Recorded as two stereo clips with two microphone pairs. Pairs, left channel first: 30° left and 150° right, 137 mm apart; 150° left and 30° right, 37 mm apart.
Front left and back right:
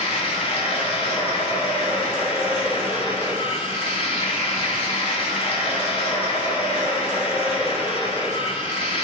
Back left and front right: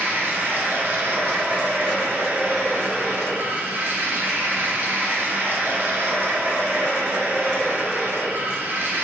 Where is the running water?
15° right, 1.0 m.